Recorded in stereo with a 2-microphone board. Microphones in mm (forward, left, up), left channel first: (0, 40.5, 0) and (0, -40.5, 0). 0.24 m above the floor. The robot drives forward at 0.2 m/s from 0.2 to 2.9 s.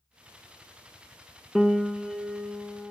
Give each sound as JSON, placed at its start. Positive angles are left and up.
{"t": 1.6, "sound": "a piano", "side_deg": -5, "distance_m": 0.9}